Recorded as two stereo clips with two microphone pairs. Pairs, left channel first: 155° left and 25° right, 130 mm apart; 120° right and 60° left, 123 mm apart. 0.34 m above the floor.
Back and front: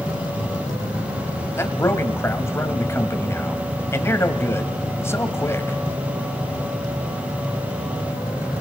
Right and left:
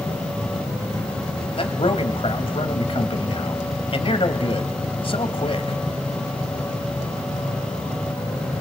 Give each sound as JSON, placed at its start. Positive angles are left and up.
{"t": 1.6, "sound": "a man speaking", "azimuth_deg": -140, "distance_m": 2.0}